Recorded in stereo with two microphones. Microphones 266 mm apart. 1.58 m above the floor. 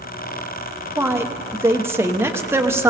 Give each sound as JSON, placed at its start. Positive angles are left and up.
{"t": 1.0, "sound": "a woman speaking", "side_deg": -10, "distance_m": 1.0}